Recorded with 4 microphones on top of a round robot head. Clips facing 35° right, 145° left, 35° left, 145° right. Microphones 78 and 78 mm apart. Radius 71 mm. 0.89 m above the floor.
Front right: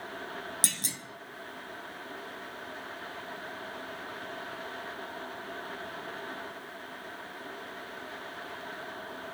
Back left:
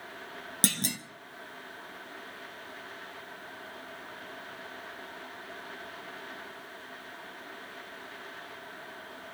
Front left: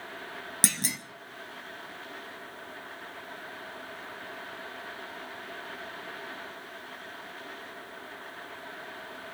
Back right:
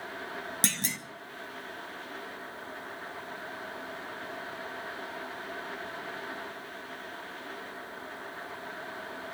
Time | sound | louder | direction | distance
0.6 | a clunk | back left 6 dB, front left 3 dB | 115° left | 1.0 m